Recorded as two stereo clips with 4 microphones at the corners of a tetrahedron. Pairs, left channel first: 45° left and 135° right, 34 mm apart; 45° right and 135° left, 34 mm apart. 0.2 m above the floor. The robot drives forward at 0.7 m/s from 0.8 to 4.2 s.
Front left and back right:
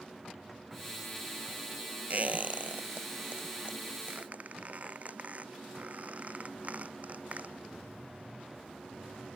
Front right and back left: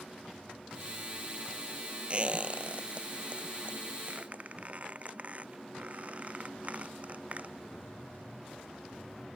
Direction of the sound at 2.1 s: 170° right.